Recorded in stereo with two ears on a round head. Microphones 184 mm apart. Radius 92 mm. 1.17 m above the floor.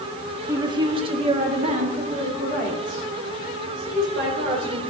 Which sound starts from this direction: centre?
A woman speaking, at 0.5 s.